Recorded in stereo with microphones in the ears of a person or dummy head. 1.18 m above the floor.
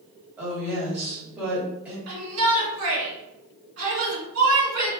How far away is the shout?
About 1.5 m.